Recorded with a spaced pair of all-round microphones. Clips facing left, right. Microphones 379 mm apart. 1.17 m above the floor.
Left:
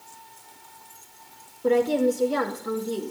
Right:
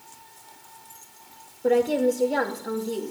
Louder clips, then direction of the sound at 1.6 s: Even; 10° left (ahead or behind).